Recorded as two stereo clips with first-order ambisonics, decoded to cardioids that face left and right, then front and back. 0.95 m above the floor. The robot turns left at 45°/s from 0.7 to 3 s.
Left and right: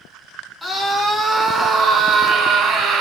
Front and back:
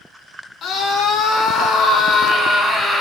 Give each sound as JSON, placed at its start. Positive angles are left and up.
{"t": 0.6, "sound": "a scream", "azimuth_deg": 10, "distance_m": 0.7}